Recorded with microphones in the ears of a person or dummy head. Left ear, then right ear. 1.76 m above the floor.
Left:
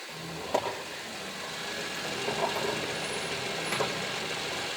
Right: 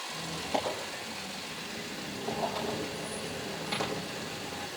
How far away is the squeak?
About 7.5 m.